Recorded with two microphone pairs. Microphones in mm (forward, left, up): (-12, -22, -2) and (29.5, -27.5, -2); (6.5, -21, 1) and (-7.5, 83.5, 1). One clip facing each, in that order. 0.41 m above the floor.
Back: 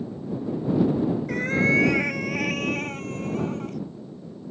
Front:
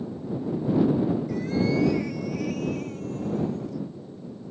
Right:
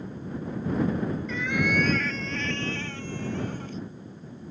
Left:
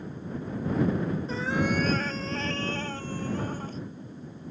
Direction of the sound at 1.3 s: 150° left.